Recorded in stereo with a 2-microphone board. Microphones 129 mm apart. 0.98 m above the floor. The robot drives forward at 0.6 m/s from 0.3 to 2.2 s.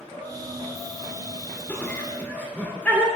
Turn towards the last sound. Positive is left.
turn(degrees=15)  # may be behind; listen again after turning